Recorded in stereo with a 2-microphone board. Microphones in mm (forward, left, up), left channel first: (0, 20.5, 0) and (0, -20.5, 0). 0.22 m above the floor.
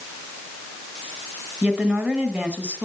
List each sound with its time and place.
1.6 s a woman speaking: 35° right (ahead or behind), 1.8 m